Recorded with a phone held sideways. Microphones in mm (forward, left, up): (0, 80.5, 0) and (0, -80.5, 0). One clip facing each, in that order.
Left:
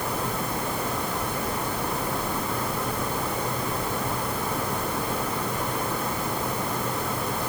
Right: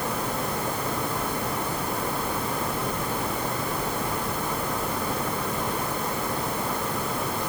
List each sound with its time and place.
Only background noise.